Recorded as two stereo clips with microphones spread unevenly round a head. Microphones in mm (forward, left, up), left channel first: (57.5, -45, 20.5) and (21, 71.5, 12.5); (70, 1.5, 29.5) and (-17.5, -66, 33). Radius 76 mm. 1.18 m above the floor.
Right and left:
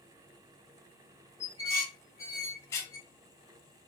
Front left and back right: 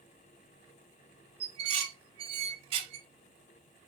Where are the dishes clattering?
135° right, 0.5 m.